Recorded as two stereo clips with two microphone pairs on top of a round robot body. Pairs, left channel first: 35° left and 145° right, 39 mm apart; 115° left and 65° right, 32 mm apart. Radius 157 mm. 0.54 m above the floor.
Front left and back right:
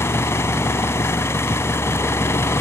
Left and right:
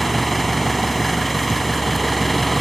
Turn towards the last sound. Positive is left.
turn(degrees=30)